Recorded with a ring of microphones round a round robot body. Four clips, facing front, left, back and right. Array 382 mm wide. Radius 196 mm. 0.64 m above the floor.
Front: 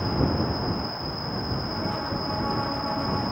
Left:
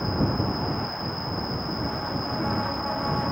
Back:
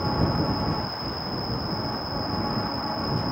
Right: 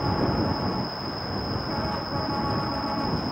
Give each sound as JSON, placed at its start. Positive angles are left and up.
{"t": 0.0, "sound": "an insect", "azimuth_deg": 75}